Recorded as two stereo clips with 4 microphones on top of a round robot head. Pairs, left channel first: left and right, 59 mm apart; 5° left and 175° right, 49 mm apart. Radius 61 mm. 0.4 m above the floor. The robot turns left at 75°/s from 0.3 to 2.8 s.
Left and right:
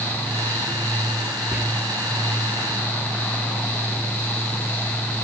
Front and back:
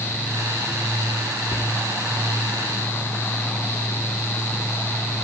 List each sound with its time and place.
1.5 s whispering: 30° right, 1.2 m; by 1.6 s 40° right, 1.2 m